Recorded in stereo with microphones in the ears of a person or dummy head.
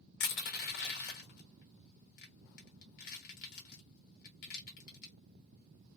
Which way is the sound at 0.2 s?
50° left (ahead or behind).